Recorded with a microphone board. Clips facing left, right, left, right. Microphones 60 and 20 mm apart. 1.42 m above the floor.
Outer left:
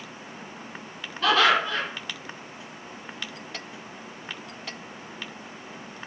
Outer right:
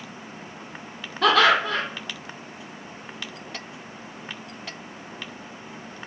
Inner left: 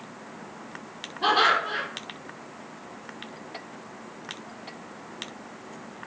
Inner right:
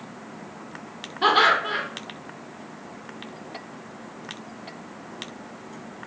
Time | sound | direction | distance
1.2 | laughter | 75° right (ahead or behind) | 0.6 m